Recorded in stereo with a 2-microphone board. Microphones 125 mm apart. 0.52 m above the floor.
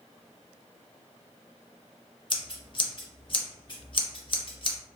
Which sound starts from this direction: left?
Scissors, at 2.3 s.